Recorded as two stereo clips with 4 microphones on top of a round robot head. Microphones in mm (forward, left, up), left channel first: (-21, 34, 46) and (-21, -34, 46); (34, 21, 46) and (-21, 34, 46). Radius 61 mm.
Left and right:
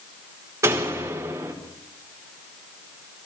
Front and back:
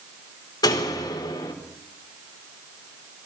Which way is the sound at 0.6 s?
35° right.